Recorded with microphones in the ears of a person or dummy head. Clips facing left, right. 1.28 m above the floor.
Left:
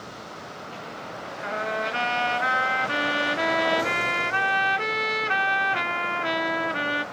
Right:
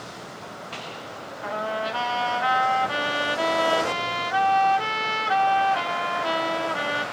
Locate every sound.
1.4 s a trumpet: 30° left (ahead or behind), 1.2 m